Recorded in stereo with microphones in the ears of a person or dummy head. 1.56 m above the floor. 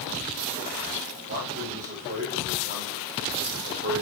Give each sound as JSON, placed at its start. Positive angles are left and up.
{"t": 1.3, "sound": "a man speaking", "side_deg": -45, "distance_m": 8.0}